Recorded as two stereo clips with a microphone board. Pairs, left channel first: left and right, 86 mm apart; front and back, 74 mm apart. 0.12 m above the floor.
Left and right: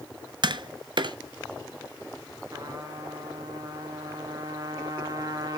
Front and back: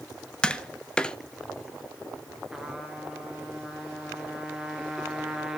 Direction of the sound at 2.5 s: 95° right.